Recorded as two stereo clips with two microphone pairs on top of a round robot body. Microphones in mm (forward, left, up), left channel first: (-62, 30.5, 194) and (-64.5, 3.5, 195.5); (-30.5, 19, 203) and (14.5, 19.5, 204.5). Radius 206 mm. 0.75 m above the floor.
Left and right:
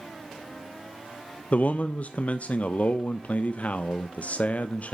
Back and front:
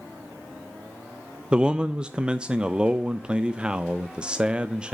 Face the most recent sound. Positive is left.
turn(degrees=70)